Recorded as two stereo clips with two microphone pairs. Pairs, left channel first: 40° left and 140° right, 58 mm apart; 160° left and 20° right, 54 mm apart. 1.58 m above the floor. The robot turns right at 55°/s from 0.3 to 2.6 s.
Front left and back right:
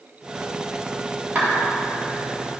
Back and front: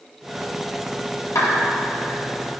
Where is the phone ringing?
No phone ringing in this recording.